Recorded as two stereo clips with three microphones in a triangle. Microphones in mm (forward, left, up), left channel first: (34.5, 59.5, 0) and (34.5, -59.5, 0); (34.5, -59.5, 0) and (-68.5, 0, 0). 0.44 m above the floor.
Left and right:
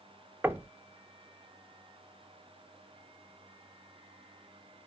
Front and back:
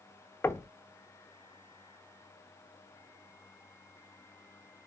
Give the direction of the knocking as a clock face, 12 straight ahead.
2 o'clock.